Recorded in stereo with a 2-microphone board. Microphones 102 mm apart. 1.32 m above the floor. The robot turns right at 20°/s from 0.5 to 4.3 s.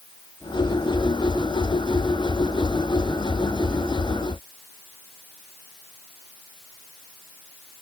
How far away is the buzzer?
No buzzer in this recording.